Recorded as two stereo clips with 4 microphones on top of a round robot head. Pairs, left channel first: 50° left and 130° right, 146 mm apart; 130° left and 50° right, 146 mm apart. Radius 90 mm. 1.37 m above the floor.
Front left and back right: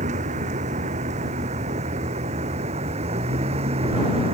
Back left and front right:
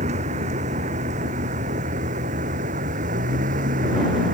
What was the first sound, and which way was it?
A vehicle, 90° right.